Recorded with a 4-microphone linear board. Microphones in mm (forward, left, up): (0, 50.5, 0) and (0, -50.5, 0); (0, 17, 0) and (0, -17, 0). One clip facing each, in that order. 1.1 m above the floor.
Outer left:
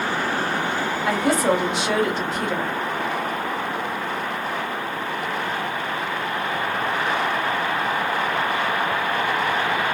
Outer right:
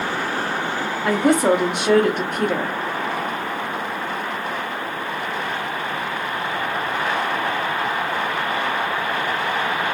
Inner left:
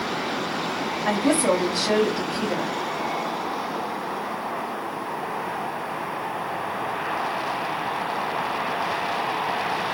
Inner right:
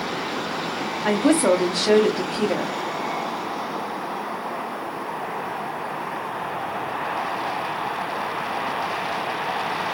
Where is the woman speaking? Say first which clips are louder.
Outer right 4 dB, inner right 3 dB; 55° right (ahead or behind), 0.9 m.